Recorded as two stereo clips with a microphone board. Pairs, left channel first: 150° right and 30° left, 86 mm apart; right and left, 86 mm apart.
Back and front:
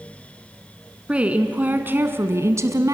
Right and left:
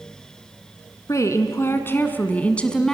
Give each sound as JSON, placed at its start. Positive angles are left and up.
{"t": 1.1, "sound": "a woman speaking", "azimuth_deg": -45, "distance_m": 2.0}